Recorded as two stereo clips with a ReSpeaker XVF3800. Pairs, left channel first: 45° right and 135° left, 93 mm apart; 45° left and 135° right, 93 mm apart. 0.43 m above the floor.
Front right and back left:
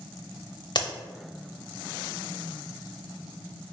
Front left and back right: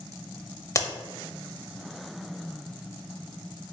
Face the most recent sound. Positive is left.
turn(degrees=-10)